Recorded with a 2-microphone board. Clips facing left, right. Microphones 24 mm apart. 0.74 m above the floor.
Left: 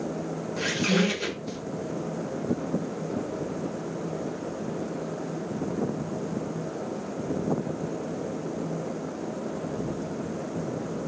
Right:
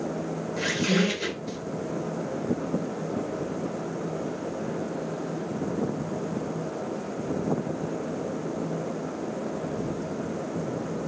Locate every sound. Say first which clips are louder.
0.6 s a squeak: even; centre (ahead or behind), 1.1 m